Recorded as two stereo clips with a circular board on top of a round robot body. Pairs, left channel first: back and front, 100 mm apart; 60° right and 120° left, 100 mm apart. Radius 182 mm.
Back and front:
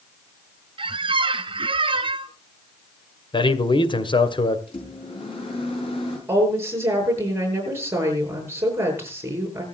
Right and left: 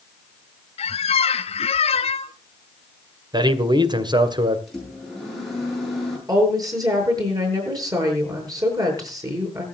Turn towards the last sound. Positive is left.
turn(degrees=65)